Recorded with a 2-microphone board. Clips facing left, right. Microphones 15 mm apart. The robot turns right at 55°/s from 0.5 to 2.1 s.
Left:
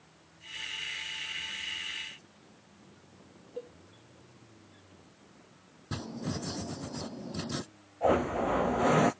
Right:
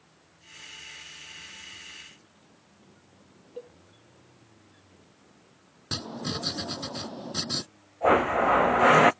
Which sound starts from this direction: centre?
A cowbell, at 3.6 s.